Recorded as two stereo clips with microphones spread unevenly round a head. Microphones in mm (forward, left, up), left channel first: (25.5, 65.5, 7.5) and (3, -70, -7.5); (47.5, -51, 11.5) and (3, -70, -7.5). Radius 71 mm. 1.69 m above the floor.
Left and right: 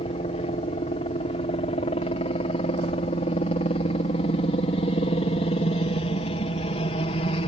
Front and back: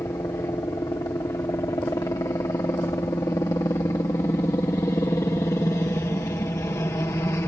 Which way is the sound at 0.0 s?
45° left.